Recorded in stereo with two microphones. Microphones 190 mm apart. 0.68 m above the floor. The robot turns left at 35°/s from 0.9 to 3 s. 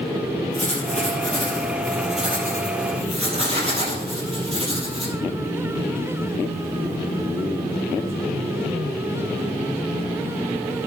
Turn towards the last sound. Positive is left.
turn(degrees=-30)